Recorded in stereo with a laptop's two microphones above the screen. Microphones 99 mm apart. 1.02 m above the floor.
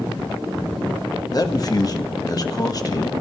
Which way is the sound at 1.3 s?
40° left (ahead or behind).